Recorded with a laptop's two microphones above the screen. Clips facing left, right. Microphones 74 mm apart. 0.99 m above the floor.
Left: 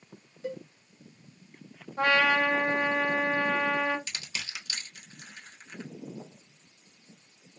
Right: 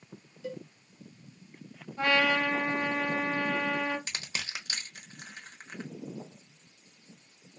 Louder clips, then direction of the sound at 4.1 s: Right 1 dB; 40° right (ahead or behind).